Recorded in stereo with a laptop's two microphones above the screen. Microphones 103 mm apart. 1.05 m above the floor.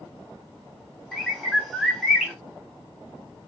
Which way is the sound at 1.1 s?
Centre (ahead or behind).